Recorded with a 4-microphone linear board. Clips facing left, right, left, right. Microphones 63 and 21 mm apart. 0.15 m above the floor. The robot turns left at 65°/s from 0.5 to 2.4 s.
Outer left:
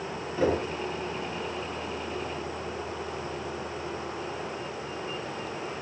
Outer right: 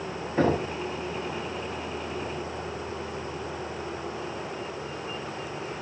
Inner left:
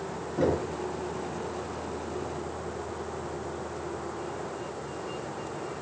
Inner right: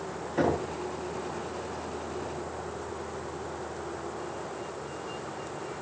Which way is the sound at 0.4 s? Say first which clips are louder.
Outer right 2 dB, even; 50° right (ahead or behind).